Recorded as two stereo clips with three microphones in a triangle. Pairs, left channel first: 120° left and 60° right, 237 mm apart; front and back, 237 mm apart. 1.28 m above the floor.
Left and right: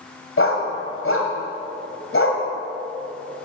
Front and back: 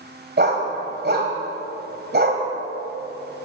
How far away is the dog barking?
About 2 m.